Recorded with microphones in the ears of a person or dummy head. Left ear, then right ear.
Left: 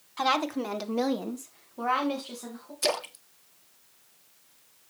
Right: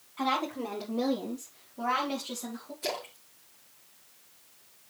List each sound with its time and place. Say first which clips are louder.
0.2 s a woman speaking: left 4 dB; 65° left (ahead or behind), 1.8 m; by 2.7 s 10° left (ahead or behind), 2.5 m
2.8 s a splash: left 7 dB; 60° left (ahead or behind), 0.9 m